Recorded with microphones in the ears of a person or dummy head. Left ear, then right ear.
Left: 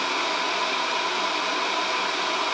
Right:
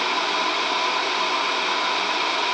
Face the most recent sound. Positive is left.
No sound to turn to.